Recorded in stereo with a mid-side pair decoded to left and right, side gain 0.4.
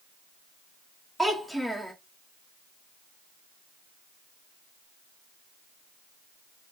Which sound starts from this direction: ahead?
A child speaking, at 1.2 s.